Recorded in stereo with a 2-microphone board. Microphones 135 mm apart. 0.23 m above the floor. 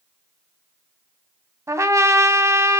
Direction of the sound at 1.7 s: 20° right (ahead or behind).